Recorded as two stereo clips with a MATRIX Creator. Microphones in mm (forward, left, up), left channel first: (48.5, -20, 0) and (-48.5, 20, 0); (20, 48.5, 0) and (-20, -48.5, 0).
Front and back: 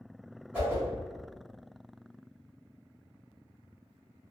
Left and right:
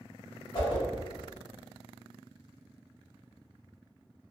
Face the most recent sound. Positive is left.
turn(degrees=85)